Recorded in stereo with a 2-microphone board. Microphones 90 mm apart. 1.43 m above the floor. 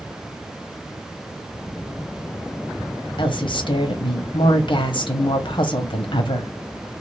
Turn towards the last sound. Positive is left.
turn(degrees=65)  # may be behind; listen again after turning